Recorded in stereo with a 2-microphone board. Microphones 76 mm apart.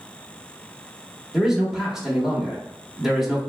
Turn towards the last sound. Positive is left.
turn(degrees=-5)  # may be behind; listen again after turning